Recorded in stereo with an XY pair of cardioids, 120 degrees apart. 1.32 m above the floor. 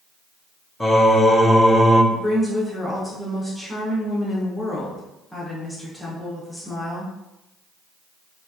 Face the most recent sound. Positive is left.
turn(degrees=10)